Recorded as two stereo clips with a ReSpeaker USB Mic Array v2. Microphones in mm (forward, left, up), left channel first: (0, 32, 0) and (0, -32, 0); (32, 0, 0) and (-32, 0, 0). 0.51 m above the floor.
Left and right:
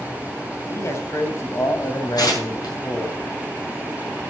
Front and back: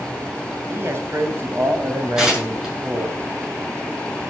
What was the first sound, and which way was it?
A man speaking, 130° left.